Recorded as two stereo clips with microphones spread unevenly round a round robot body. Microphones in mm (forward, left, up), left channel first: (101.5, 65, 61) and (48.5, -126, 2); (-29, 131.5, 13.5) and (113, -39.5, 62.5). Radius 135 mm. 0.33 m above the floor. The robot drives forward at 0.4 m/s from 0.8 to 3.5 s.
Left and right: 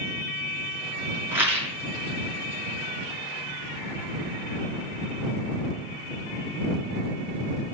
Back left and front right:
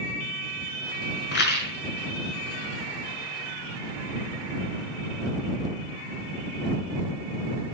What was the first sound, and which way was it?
A rattle, 175° left.